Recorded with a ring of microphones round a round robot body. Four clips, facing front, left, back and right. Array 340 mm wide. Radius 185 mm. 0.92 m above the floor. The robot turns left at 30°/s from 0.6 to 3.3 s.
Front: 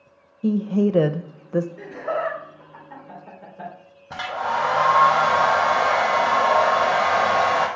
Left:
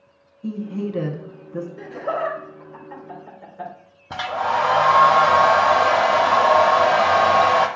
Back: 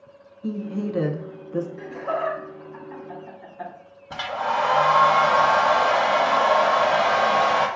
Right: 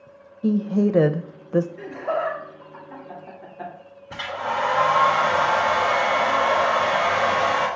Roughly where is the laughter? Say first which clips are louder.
Even, front 1 dB; left.